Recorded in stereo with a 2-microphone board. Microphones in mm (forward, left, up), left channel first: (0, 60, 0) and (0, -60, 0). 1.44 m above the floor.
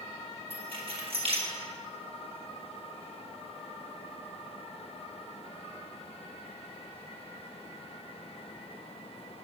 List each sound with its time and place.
0.5 s keys jangling: 50° right (ahead or behind), 1.8 m